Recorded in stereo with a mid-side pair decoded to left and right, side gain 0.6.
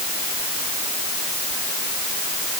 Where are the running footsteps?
I don't hear running footsteps.